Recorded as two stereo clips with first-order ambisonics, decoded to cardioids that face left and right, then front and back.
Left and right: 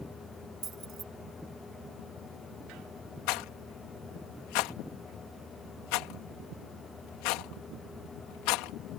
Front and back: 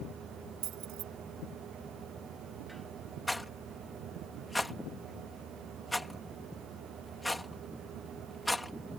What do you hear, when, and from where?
0.6 s keys jangling: 150° right
3.3 s a rattle: 85° left